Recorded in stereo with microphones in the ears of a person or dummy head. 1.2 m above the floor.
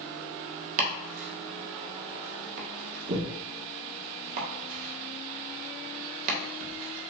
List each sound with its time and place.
0.8 s chopping: 50° right (ahead or behind), 1.5 m